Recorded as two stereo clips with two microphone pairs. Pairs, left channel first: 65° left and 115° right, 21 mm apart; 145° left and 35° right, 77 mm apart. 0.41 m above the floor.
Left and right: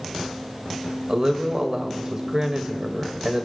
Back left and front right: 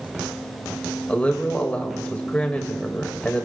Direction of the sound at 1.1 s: 150° right.